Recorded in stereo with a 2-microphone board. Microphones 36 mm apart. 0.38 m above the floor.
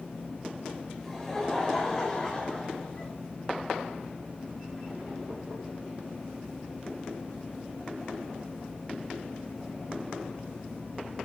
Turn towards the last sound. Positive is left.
turn(degrees=30)  # may be behind; listen again after turning